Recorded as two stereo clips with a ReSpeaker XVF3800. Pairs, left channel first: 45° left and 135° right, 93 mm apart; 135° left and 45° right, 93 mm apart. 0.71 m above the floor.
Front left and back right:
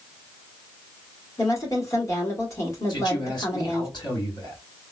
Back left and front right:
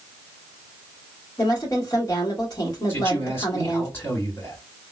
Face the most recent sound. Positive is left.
turn(degrees=75)